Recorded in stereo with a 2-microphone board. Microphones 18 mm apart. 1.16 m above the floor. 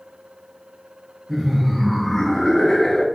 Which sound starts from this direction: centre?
Laughter, at 1.3 s.